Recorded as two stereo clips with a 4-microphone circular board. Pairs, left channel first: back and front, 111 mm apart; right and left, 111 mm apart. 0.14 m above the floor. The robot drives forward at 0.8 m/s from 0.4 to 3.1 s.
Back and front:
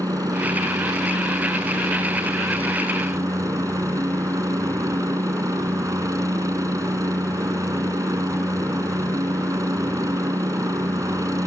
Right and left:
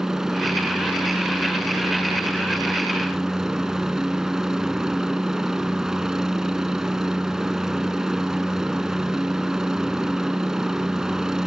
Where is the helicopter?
10° left.